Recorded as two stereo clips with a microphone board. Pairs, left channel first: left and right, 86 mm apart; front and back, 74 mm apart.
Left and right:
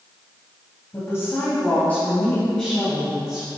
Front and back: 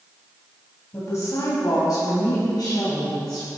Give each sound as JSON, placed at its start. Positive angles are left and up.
{"t": 0.9, "sound": "a woman speaking", "azimuth_deg": 40, "distance_m": 2.5}